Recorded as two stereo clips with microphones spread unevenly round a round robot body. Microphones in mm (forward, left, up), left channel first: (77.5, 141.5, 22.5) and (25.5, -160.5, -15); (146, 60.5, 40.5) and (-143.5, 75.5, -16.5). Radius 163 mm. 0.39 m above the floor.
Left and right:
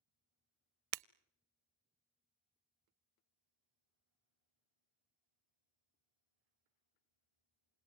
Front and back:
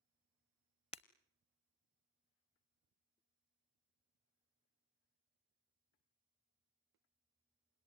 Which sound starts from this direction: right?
Breaking glass, at 0.9 s.